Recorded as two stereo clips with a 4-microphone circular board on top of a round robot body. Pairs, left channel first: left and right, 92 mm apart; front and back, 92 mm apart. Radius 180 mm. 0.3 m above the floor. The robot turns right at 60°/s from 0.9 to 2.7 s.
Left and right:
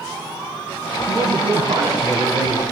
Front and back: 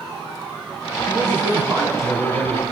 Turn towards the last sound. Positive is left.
turn(degrees=-50)